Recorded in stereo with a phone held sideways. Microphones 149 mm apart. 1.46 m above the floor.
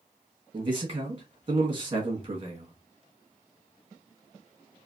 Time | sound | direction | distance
0.5 | a man speaking | 35° right (ahead or behind) | 1.4 m